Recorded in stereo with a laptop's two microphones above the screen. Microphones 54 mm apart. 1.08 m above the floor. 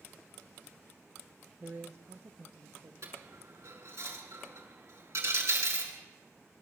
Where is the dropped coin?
60° right (ahead or behind), 7 m.